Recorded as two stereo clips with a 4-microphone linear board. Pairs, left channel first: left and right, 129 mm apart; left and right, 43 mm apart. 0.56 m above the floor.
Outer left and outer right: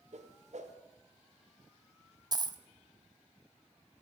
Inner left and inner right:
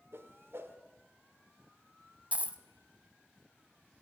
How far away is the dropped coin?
About 0.6 m.